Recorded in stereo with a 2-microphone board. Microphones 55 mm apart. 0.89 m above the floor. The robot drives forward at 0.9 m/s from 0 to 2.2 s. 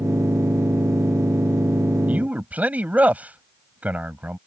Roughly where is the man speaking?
Right.